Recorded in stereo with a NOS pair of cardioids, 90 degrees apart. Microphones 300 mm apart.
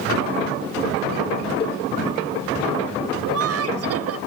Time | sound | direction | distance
1.6 | a cowbell | 30° left | ?
3.2 | laughter | 50° right | ?